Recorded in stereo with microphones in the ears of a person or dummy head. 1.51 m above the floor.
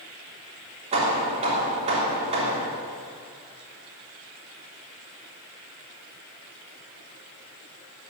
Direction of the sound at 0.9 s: 35° right (ahead or behind).